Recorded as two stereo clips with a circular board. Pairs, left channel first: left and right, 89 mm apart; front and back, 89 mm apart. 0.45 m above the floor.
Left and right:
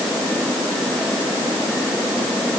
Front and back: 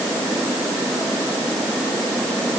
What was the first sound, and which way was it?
Only background noise.